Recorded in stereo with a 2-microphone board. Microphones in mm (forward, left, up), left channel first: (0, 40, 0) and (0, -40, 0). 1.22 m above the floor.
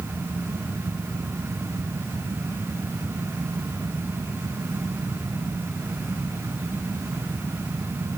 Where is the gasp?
No gasp in this recording.